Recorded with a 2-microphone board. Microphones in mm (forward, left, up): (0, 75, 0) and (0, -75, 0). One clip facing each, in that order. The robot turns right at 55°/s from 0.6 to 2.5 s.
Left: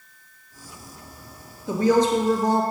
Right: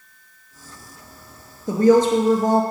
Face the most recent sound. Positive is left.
turn(degrees=-70)